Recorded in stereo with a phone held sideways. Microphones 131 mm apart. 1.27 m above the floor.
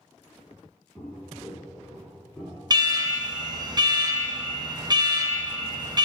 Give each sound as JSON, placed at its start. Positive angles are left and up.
{"t": 1.0, "sound": "footsteps", "side_deg": 10, "distance_m": 2.5}
{"t": 2.7, "sound": "an alarm", "side_deg": -30, "distance_m": 0.7}